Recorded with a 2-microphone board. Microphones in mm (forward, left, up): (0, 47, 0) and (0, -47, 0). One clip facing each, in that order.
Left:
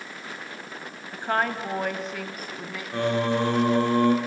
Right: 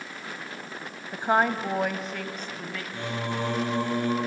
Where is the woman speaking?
20° right (ahead or behind), 1.0 m; by 2.8 s 15° left (ahead or behind), 1.3 m.